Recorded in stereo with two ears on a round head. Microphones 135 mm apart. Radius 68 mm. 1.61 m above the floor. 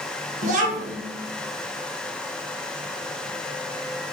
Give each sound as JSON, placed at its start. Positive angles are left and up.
{"t": 0.4, "sound": "a child speaking", "side_deg": -55, "distance_m": 1.3}